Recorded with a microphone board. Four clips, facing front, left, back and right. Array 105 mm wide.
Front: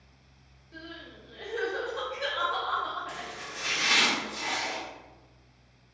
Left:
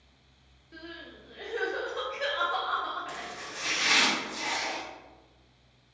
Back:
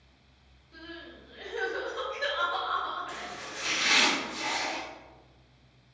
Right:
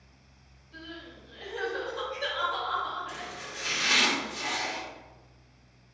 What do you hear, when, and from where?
0.7 s crying: 75° left, 0.9 m
3.1 s chopping: 65° left, 1.7 m